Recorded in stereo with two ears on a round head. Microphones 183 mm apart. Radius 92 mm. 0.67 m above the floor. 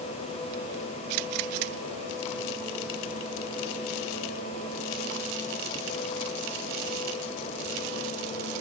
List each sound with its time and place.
Only background noise.